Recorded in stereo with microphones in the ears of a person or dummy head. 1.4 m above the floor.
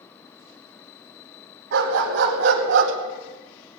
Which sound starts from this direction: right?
A dog barking, at 1.7 s.